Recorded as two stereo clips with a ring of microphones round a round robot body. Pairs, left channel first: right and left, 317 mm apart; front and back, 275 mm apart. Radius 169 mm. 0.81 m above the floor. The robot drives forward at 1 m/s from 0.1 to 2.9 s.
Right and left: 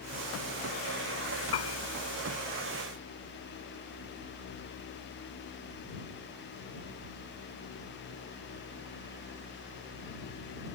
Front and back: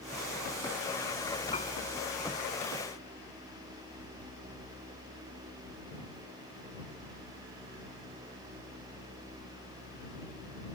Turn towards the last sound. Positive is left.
turn(degrees=-80)